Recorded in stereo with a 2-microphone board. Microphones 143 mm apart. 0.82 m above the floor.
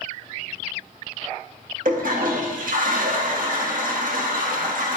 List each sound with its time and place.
1.9 s a toilet flushing: 70° right (ahead or behind), 0.7 m